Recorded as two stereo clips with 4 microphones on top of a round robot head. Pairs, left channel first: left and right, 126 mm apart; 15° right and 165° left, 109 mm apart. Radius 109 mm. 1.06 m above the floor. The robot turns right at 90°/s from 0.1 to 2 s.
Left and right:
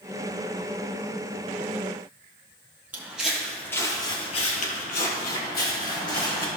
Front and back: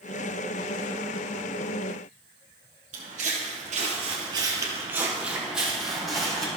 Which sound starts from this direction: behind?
Footsteps, at 2.9 s.